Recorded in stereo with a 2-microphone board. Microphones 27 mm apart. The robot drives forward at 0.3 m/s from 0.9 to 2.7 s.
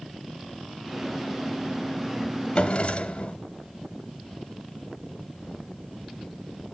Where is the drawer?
45° left (ahead or behind), 1.2 m.